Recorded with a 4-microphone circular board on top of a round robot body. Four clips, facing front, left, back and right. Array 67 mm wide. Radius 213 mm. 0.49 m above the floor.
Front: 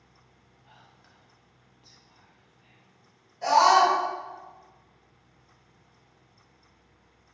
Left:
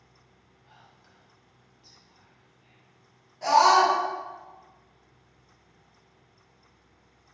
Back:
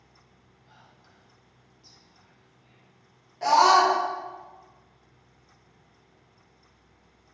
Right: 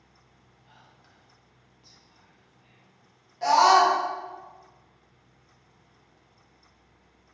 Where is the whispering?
10° right, 1.1 m.